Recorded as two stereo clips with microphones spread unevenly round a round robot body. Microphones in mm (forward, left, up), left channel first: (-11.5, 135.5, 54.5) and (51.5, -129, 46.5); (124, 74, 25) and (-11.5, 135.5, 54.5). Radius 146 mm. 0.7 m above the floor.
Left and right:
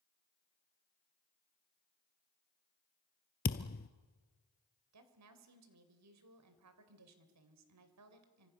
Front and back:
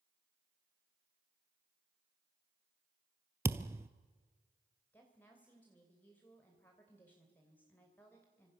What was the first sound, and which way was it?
A thud, 120° left.